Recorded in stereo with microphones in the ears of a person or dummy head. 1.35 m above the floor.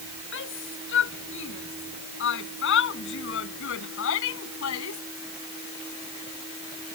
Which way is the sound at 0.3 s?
60° left (ahead or behind).